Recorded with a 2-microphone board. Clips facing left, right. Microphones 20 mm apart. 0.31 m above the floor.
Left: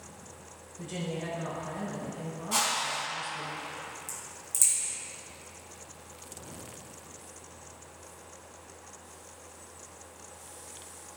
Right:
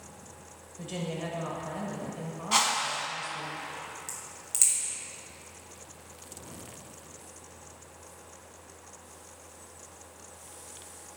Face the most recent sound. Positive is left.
turn(degrees=-35)  # may be behind; listen again after turning